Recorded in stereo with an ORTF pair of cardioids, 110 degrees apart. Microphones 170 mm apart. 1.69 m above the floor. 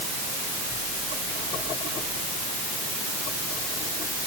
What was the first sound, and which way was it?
Only background noise.